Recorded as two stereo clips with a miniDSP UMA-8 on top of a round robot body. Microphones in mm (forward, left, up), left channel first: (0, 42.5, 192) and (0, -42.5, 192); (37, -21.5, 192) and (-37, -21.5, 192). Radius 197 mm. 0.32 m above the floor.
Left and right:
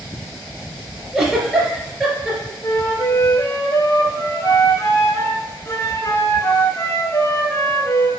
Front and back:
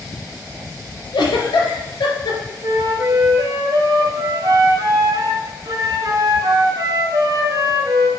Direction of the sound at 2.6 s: 150° left.